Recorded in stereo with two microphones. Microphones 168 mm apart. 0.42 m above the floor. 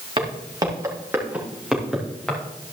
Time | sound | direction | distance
0.2 | footsteps | 30° right (ahead or behind) | 3.5 m